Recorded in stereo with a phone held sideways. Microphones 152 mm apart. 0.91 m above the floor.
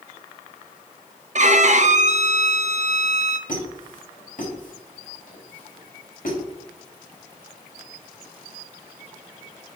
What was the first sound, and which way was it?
A violin, 50° right (ahead or behind).